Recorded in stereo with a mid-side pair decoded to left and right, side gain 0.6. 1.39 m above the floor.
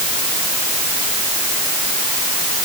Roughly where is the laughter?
No laughter in this recording.